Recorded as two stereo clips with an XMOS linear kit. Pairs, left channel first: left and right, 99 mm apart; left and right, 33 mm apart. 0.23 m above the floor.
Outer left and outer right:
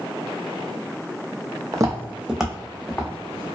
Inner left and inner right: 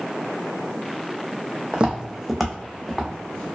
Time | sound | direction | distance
1.7 | footsteps | 40° right (ahead or behind) | 0.5 m